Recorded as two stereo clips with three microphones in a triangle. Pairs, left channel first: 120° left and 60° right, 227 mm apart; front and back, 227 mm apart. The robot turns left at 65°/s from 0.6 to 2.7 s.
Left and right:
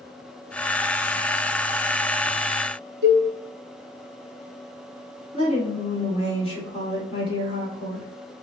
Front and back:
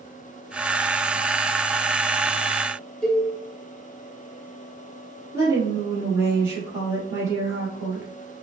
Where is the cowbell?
85° right, 1.1 m.